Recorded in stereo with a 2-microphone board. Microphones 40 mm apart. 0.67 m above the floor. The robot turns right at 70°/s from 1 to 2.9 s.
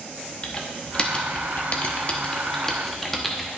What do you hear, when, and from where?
0.4 s typing on a keyboard: 25° left (ahead or behind), 1.0 m; by 3.5 s 5° left (ahead or behind), 1.0 m